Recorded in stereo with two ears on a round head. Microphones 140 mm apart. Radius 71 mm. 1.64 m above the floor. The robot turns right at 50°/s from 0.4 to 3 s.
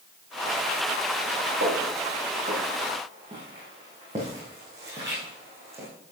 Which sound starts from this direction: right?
Footsteps, at 1.6 s.